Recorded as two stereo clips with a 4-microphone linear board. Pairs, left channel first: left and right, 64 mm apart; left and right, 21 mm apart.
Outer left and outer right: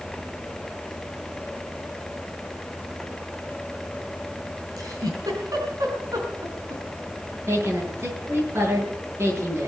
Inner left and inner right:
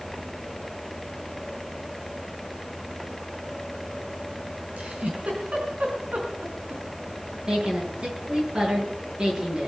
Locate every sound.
4.8 s a giggle: 70° right (ahead or behind), 4.5 m
7.5 s a woman speaking: 45° right (ahead or behind), 8.5 m